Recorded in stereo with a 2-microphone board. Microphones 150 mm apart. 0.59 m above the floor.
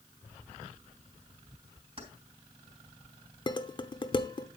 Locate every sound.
2.0 s keys jangling: 45° right (ahead or behind), 3.5 m
3.5 s dishes clattering: 30° left (ahead or behind), 0.8 m